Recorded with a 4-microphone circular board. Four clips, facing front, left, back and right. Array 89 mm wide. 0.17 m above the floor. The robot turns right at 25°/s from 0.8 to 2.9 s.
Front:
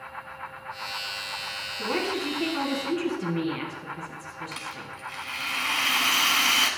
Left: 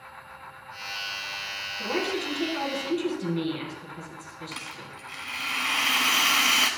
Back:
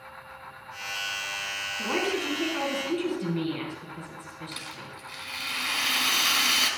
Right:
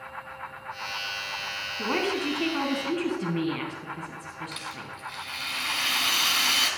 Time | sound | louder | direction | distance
1.8 | a woman speaking | right 2 dB, even | 100° right | 1.2 m
4.5 | a rattle | right 2 dB, front 3 dB | 50° left | 0.9 m